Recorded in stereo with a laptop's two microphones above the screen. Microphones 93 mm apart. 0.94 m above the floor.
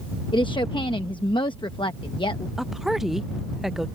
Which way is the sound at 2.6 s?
5° right (ahead or behind).